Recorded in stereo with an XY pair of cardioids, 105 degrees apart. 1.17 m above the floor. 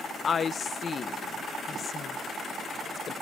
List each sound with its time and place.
0.2 s a woman speaking: 45° left